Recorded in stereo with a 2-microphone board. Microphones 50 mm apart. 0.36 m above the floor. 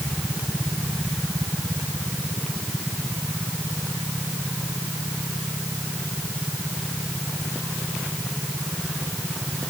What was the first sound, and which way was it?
Only background noise.